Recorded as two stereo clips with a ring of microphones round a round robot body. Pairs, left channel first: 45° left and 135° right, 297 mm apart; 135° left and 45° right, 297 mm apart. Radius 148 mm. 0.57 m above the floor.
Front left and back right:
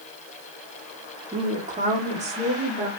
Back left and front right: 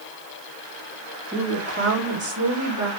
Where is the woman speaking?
90° right, 1.1 m; by 2.9 s 65° right, 1.9 m.